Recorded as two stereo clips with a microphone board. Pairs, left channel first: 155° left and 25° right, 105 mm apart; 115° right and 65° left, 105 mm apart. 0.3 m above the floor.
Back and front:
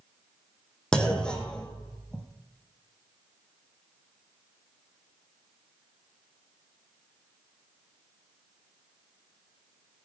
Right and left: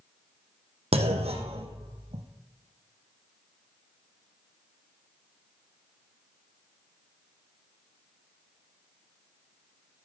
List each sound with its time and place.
0.9 s a clunk: 75° left, 2 m